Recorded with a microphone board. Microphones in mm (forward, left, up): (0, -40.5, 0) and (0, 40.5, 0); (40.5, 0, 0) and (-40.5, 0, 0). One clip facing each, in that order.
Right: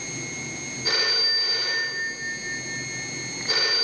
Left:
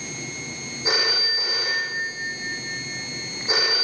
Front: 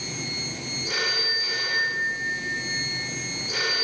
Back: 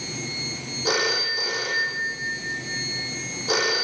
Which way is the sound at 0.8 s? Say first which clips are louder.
Left 3 dB, back 5 dB; 160° left.